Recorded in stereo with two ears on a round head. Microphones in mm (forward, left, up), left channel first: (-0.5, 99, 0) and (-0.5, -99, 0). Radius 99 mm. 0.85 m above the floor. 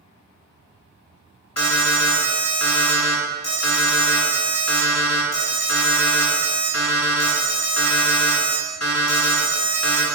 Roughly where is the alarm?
Left.